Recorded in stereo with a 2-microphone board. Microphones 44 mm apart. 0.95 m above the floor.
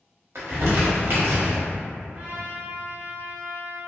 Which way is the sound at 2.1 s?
40° right (ahead or behind).